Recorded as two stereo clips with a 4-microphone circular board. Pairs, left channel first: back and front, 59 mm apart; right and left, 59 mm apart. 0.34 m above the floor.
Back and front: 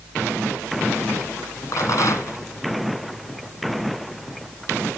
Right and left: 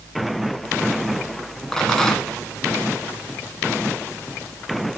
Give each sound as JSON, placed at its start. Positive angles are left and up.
{"t": 1.7, "sound": "a rattle", "azimuth_deg": -170, "distance_m": 1.9}